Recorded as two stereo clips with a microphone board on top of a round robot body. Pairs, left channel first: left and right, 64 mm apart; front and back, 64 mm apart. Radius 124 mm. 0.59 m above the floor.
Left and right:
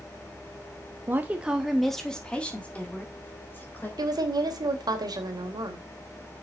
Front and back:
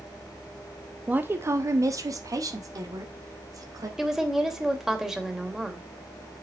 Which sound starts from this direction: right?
A woman speaking, at 4.0 s.